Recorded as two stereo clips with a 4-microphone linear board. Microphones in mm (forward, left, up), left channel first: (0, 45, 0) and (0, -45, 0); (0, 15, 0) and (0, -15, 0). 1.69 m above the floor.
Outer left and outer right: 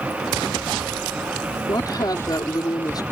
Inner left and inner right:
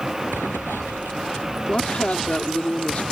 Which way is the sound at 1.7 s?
45° left (ahead or behind).